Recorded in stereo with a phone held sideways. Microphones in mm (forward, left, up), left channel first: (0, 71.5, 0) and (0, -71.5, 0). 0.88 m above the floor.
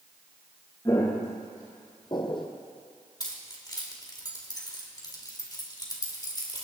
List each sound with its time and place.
0.8 s footsteps: 25° left (ahead or behind), 4 m; by 2.5 s 35° left (ahead or behind), 1.9 m
3.2 s keys jangling: 30° left (ahead or behind), 2 m